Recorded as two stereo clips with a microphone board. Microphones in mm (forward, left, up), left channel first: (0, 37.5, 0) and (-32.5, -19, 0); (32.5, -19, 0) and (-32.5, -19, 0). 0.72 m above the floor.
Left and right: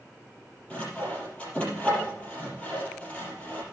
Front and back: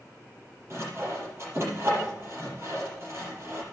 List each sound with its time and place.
0.7 s sawing: 130° left, 5.5 m